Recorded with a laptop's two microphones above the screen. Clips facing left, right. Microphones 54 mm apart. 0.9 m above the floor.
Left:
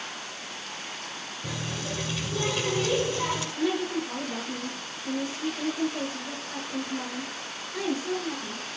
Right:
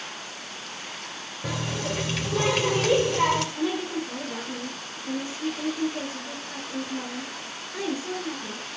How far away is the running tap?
About 2.5 m.